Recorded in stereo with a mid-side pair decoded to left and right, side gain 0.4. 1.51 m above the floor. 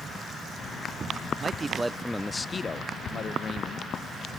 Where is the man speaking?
45° right, 0.8 m; by 3.9 s 55° left, 2.0 m.